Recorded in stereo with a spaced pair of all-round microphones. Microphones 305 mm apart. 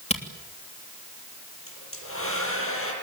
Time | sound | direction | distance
0.1 | a camera shutter | 20° left (ahead or behind) | 3 m
1.7 | a hair dryer | 45° left (ahead or behind) | 7 m